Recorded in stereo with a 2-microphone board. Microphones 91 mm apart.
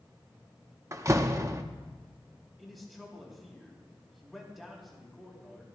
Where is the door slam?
35° right (ahead or behind), 0.7 m.